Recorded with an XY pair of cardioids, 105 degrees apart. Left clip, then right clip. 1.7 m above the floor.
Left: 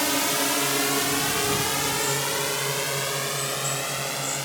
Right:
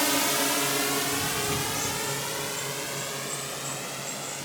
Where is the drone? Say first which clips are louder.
Left 1 dB; straight ahead; by 4.5 s 50° left.